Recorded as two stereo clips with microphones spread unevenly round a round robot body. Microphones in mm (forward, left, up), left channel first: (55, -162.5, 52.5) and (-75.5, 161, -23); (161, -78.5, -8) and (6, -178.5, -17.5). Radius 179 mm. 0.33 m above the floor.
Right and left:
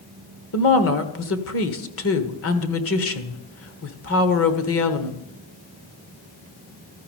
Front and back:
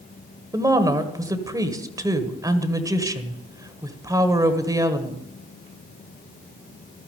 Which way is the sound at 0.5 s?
100° right.